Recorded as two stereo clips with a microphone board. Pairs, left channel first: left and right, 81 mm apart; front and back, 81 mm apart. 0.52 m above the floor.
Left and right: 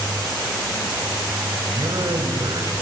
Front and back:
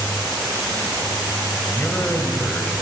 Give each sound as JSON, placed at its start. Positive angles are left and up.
{"t": 1.7, "sound": "a man speaking", "azimuth_deg": -60, "distance_m": 2.0}